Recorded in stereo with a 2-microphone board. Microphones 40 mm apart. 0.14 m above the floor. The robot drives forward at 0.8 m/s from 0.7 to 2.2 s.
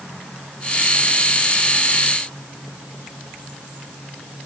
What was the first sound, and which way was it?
Only background noise.